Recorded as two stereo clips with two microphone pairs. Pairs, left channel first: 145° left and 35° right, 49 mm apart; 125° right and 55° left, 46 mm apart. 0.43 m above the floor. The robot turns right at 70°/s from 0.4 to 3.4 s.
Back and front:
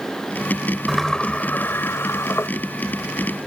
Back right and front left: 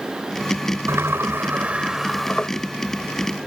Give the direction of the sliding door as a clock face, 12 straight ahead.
10 o'clock.